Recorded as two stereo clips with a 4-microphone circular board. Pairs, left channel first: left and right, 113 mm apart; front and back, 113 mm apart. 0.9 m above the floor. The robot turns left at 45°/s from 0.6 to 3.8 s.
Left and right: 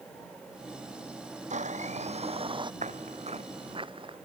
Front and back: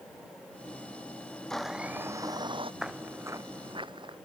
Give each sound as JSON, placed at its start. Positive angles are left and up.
{"t": 1.5, "sound": "a blender", "azimuth_deg": -85}
{"t": 2.8, "sound": "footsteps", "azimuth_deg": -95}